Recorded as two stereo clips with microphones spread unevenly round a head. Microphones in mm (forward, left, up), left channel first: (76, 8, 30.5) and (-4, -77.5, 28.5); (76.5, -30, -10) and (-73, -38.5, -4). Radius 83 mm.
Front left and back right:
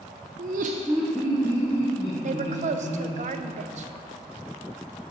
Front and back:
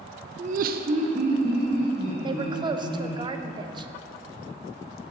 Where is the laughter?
130° right, 0.6 m; by 3.2 s 105° left, 3.5 m.